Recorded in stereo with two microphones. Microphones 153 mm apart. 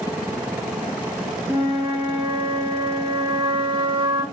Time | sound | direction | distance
1.5 | a flute | 30° right (ahead or behind) | 1.2 m